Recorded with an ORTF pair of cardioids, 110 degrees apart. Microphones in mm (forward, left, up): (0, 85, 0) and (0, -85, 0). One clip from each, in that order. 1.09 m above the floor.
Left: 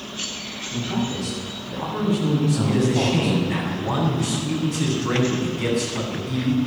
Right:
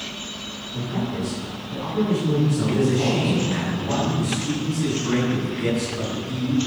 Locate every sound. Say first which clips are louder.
0.7 s a man speaking: left 2 dB; 60° left, 7.5 m; by 3.6 s 80° left, 7 m
2.6 s a man speaking: left 1 dB; 50° left, 8 m